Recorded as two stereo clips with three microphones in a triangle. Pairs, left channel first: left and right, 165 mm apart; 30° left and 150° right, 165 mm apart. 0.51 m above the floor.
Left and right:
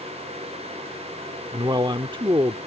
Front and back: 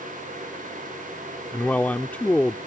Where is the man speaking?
45° right.